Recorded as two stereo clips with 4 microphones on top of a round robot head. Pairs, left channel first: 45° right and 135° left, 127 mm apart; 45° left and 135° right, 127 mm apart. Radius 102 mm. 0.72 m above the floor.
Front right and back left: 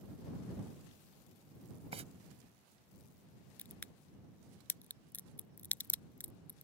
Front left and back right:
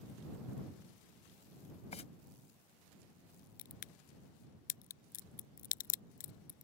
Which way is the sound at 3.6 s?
30° left.